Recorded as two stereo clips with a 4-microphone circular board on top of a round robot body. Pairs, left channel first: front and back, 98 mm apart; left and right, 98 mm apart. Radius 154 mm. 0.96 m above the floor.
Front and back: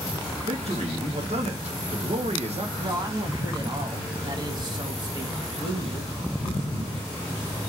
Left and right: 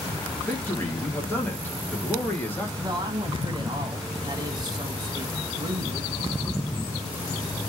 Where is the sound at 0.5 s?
165° left, 1.5 m.